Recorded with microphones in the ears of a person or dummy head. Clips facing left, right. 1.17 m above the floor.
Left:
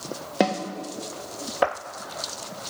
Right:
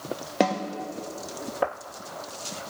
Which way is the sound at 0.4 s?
Centre (ahead or behind).